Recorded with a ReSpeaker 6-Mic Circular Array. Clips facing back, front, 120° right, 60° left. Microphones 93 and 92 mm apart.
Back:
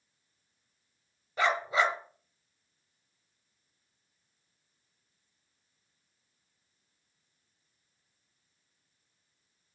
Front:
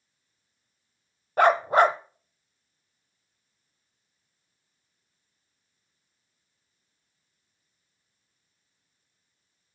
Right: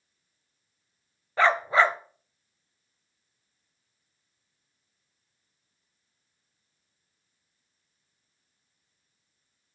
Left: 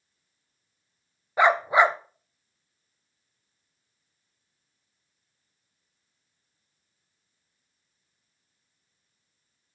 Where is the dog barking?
10° right, 0.7 m.